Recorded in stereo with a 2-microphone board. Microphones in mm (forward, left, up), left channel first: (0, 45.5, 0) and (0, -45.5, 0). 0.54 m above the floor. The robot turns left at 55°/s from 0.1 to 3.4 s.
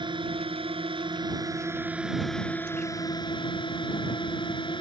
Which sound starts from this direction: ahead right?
A drone, at 0.0 s.